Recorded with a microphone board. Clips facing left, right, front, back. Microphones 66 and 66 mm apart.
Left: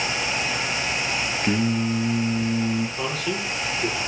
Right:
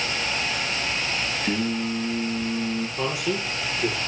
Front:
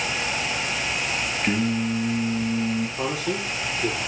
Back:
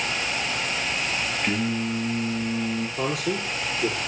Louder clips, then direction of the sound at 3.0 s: Right 1 dB, even; 170° right.